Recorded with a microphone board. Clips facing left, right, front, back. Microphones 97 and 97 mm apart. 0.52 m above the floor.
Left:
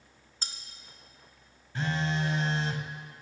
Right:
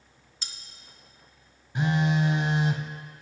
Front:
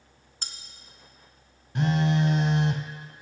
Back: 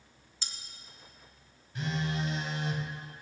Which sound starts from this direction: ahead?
A phone buzzing, at 1.8 s.